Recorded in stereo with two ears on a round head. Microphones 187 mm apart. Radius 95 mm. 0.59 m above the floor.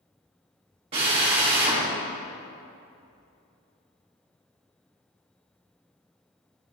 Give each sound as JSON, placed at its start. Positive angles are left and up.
{"t": 0.9, "sound": "a drill", "side_deg": -30, "distance_m": 1.8}